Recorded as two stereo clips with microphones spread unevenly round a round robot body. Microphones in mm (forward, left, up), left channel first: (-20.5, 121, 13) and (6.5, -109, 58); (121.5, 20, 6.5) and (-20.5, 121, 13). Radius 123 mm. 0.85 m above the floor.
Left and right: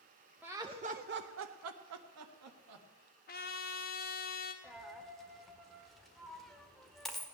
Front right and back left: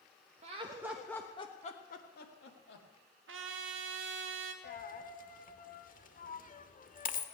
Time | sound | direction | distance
0.4 | laughter | 175° right | 0.9 m
3.3 | a trumpet | 150° left | 1.4 m
4.6 | a dropped coin | 5° left | 1.3 m